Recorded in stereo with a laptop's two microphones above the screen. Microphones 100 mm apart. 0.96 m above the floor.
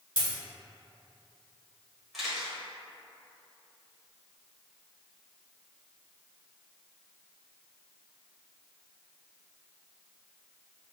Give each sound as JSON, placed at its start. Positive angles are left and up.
{"t": 0.2, "sound": "a dropped coin", "side_deg": 50, "distance_m": 1.3}
{"t": 2.1, "sound": "a camera shutter", "side_deg": 0, "distance_m": 0.9}